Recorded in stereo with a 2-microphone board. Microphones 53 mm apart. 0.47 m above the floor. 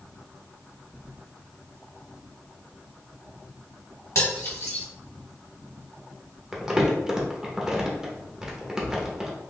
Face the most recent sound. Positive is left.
turn(degrees=-15)  # may be behind; listen again after turning